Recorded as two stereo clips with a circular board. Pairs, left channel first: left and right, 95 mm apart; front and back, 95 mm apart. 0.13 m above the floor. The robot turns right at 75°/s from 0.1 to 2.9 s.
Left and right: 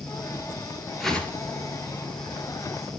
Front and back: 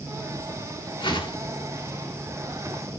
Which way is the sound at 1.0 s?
Straight ahead.